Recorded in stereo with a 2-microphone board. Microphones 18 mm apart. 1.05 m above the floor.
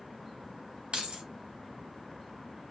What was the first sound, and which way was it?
Keys jangling, 80° right.